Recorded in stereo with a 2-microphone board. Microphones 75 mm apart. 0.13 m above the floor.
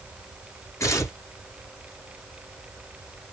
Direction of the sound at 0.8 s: 45° left (ahead or behind).